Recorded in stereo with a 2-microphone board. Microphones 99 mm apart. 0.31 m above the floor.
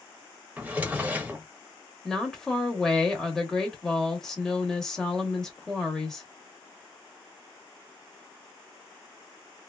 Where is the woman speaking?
5° left (ahead or behind), 0.9 m.